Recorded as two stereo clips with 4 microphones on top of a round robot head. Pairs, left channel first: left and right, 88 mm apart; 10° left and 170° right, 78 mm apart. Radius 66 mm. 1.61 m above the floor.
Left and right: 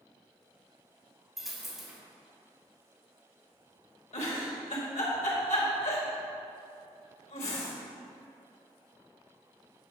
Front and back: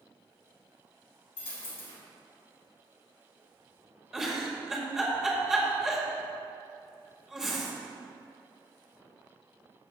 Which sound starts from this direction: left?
A giggle, at 4.1 s.